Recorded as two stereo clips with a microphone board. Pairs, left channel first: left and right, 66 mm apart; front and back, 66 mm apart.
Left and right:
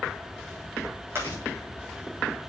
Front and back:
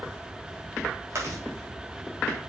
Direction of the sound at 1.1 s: 140° right.